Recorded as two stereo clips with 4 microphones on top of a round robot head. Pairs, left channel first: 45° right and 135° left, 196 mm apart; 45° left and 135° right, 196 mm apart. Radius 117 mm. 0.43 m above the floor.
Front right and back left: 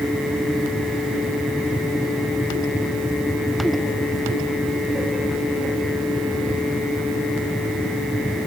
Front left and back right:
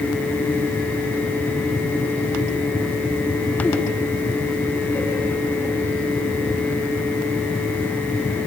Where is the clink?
No clink in this recording.